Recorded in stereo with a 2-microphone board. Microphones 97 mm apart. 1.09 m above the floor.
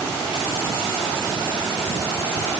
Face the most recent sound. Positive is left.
No sound to turn to.